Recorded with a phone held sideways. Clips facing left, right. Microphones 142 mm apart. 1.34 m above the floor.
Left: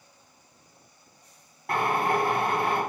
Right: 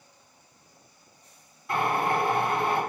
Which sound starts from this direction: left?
A drill, at 1.7 s.